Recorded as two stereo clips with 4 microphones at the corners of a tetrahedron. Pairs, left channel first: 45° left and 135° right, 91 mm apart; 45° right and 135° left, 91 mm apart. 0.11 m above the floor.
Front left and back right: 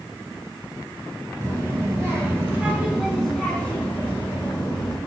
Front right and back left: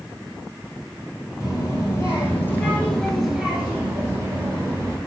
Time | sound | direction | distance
1.4 | a child speaking | 90° right | 1.6 m